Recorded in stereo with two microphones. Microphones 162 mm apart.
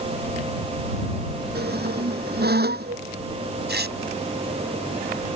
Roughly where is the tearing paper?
Right.